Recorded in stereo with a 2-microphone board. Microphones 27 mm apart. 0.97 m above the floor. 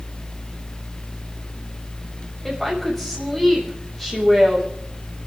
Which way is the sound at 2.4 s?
15° left (ahead or behind).